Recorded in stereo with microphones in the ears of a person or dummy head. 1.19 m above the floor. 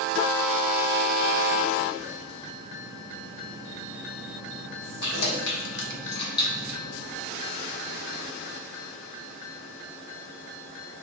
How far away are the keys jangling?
About 1.2 m.